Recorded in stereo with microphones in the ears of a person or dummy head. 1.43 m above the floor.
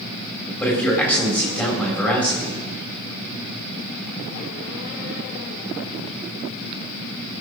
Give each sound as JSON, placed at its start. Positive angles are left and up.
{"t": 0.6, "sound": "a man speaking", "side_deg": 10, "distance_m": 4.0}